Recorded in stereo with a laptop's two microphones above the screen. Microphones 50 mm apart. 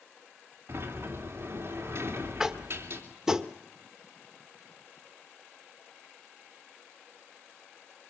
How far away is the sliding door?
About 3 m.